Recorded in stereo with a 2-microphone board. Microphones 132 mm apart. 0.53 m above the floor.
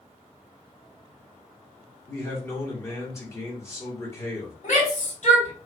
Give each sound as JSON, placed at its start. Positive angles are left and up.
{"t": 2.1, "sound": "a man speaking", "side_deg": 20, "distance_m": 1.7}
{"t": 4.6, "sound": "a shout", "side_deg": 70, "distance_m": 3.0}